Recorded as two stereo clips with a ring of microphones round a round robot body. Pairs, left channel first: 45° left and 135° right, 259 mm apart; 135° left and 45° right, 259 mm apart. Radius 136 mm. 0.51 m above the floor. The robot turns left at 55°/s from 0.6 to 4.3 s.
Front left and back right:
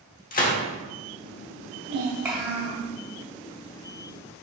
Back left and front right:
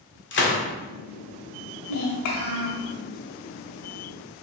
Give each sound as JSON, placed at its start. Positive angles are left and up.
{"t": 0.3, "sound": "a gunshot", "azimuth_deg": 100, "distance_m": 1.1}
{"t": 1.9, "sound": "a child speaking", "azimuth_deg": 160, "distance_m": 1.6}